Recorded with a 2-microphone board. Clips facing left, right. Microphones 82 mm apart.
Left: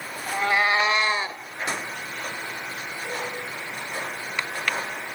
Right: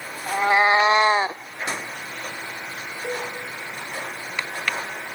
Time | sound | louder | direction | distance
0.3 | a cat meowing | right 4 dB | 20° right (ahead or behind) | 0.9 m
3.0 | a cowbell | right 3 dB | 45° right (ahead or behind) | 7.5 m